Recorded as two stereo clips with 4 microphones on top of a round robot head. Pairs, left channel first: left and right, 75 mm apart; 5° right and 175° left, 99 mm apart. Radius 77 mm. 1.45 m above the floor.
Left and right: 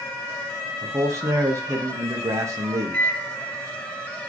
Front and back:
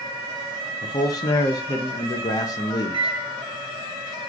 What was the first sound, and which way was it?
A man speaking, 50° right.